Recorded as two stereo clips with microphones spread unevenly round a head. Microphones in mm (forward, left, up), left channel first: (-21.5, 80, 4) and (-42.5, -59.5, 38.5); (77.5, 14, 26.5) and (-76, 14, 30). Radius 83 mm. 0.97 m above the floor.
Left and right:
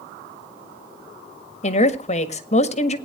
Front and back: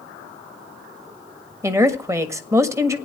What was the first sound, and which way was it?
A woman speaking, 110° left.